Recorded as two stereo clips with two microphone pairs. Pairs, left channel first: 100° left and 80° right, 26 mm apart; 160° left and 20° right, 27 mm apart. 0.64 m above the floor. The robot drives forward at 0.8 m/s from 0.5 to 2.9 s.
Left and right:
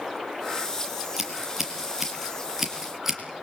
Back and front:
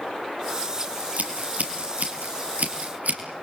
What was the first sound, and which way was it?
Scissors, straight ahead.